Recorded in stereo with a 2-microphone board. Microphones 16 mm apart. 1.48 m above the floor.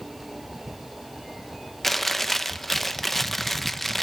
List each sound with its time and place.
1.8 s chewing: 10° left (ahead or behind), 0.7 m